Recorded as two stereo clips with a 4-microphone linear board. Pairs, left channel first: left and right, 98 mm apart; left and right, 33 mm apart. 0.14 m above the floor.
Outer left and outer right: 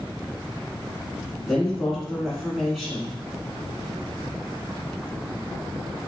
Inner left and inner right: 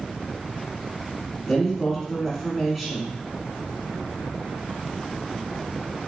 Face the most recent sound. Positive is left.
turn(degrees=0)  # may be behind; listen again after turning